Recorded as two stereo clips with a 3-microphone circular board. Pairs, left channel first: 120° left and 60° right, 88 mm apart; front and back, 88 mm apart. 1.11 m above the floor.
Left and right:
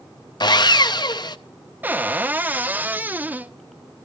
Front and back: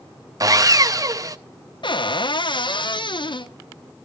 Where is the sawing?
140° left, 0.5 m.